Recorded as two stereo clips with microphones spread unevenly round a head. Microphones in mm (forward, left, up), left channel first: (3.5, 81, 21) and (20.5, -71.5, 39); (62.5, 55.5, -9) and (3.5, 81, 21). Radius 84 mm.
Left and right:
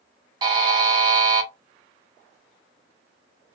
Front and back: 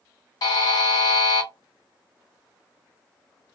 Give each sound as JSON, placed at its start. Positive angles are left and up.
{"t": 0.4, "sound": "a buzzer", "azimuth_deg": -65, "distance_m": 1.1}